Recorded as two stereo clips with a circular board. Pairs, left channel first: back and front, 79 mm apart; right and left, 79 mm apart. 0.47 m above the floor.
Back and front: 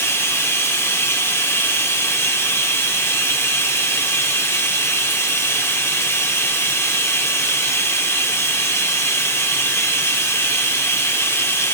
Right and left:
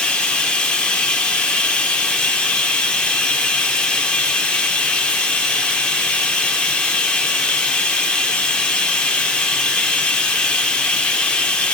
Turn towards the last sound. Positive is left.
turn(degrees=-155)